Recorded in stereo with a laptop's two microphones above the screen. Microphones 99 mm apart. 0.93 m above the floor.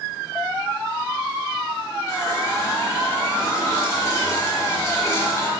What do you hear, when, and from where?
2.1 s a running tap: 30° left (ahead or behind), 4 m